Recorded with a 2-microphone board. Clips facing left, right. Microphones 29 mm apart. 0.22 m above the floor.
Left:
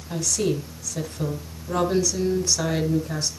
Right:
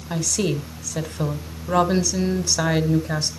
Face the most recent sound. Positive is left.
turn(degrees=-35)  # may be behind; listen again after turning